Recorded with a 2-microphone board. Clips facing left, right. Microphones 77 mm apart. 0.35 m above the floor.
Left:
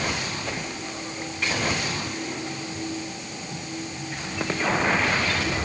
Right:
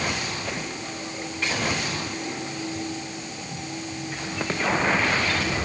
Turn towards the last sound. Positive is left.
No sound to turn to.